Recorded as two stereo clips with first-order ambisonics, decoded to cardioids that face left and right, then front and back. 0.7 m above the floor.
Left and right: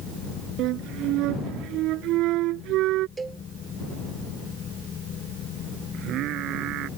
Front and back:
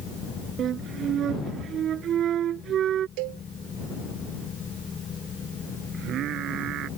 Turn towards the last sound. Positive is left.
turn(degrees=-135)